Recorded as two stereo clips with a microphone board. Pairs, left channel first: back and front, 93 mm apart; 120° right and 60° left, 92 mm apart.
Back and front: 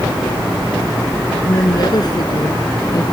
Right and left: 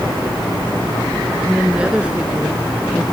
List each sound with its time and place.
1.4 s a woman speaking: 140° left; by 3.0 s 135° left